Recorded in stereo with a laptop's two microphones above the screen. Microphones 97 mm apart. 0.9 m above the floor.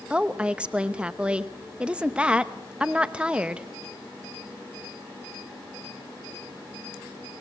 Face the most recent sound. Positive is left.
turn(degrees=-10)  # may be behind; listen again after turning